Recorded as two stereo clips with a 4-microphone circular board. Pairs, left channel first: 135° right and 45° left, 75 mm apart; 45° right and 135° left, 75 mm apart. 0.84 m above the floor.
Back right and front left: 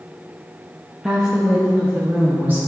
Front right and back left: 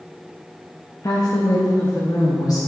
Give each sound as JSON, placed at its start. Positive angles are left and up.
{"t": 1.0, "sound": "a woman speaking", "azimuth_deg": -35, "distance_m": 1.1}